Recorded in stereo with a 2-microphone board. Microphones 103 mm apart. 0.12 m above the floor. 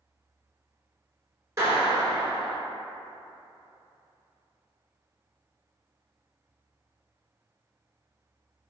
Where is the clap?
30° right (ahead or behind), 1.0 m.